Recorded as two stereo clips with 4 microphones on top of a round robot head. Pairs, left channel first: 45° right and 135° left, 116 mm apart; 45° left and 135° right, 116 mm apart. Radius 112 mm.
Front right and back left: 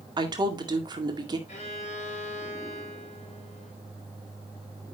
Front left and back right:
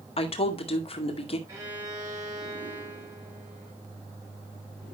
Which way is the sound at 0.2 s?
80° left.